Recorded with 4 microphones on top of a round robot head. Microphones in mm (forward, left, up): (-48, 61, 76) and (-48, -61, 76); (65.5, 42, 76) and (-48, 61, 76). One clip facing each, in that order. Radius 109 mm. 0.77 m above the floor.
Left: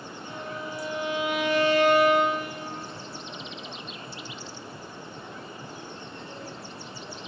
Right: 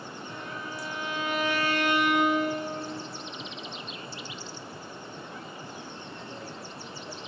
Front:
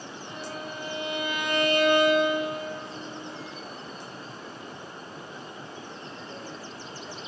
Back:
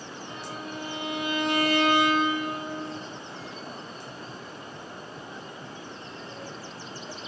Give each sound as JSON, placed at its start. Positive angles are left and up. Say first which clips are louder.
{"t": 0.2, "sound": "a violin", "louder": "left 5 dB, front 1 dB", "azimuth_deg": 30, "distance_m": 5.0}